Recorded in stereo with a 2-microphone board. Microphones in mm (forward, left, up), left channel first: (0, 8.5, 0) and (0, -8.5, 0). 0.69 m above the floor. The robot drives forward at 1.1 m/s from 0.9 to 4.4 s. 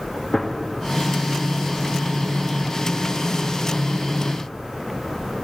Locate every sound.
0.3 s a gunshot: 35° left (ahead or behind), 1.1 m